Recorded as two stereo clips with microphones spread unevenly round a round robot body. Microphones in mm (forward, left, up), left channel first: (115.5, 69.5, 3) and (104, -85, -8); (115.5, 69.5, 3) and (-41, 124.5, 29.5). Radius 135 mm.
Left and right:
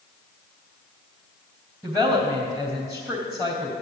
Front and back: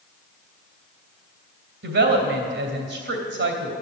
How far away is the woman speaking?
About 3 m.